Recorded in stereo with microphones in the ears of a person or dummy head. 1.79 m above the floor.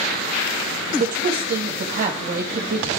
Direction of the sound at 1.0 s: 50° right (ahead or behind).